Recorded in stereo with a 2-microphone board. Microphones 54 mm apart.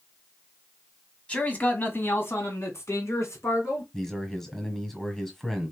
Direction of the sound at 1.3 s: 25° left (ahead or behind).